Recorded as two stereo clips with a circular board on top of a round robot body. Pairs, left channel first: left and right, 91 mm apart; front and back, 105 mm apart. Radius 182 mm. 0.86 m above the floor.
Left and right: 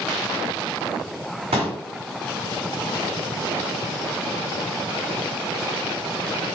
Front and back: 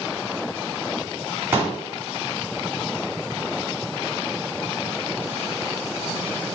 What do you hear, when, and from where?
1.5 s a pop: 110° right, 0.8 m